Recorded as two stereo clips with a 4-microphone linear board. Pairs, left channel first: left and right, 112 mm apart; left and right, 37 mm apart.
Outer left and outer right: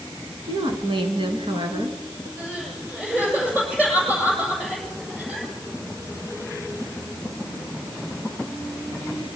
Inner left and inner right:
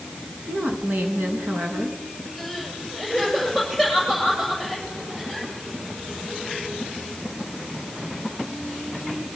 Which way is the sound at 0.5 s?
50° right (ahead or behind).